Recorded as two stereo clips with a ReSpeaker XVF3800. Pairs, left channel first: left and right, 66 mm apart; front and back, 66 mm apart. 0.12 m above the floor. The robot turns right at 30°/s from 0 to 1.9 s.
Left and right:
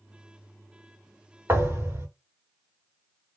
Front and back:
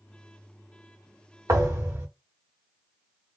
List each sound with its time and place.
1.5 s a thud: 140° right, 1.7 m; by 2.1 s 130° right, 1.7 m